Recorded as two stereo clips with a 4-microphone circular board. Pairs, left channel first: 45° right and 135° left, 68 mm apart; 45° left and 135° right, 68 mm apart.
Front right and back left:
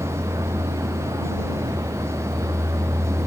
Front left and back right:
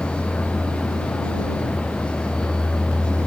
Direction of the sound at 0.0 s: 120° left.